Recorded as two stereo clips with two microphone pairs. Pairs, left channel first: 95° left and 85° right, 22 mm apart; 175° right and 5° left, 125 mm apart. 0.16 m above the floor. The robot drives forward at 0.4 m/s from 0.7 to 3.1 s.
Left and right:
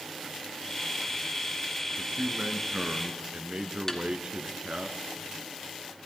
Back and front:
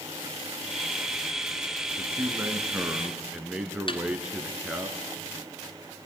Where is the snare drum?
160° left, 2 m.